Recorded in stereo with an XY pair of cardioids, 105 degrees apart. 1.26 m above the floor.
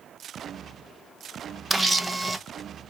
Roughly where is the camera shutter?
Ahead.